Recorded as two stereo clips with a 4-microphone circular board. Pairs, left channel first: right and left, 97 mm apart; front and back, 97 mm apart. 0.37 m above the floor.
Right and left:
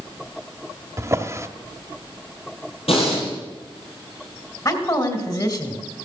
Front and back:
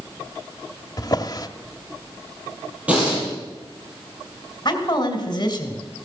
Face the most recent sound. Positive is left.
turn(degrees=-45)